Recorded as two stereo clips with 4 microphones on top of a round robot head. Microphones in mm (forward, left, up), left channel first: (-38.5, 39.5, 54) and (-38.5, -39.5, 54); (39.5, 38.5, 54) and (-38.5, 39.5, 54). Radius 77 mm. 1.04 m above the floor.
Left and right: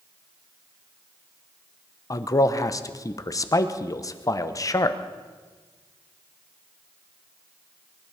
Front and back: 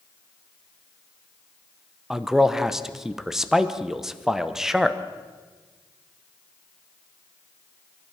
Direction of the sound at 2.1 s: 95° left.